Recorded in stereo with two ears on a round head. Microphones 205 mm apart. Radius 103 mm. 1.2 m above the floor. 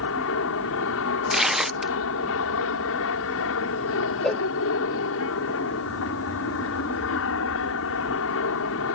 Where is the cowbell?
5° left (ahead or behind).